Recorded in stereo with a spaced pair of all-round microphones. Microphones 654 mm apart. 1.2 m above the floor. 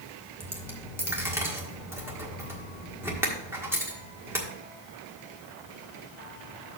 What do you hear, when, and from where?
0.4 s a dropped coin: 5° right (ahead or behind), 1.4 m